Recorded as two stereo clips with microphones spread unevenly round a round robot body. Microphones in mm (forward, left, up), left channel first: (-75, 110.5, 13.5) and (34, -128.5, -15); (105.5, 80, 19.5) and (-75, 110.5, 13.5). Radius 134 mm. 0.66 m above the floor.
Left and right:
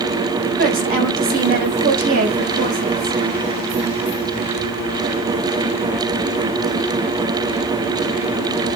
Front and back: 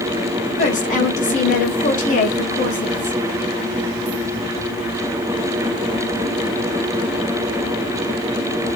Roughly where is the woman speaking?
Ahead right.